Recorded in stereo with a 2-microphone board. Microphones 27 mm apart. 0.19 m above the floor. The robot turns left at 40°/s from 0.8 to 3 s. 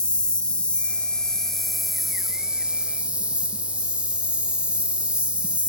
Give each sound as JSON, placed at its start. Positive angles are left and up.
{"t": 0.0, "sound": "an insect", "azimuth_deg": 45, "distance_m": 0.8}